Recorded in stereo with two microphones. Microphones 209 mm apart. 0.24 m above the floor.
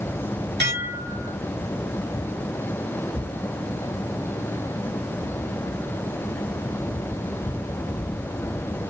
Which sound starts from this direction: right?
Dishes clattering, at 0.6 s.